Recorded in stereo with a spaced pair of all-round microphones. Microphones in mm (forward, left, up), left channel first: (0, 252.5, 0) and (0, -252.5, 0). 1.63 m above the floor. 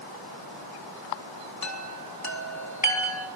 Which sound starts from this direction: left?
A chime, at 1.6 s.